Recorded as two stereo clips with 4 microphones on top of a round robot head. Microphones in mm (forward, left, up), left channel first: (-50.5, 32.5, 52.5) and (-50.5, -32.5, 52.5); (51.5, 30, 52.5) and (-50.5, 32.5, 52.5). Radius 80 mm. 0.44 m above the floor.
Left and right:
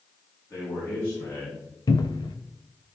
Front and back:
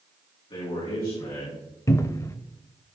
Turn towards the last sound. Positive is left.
turn(degrees=60)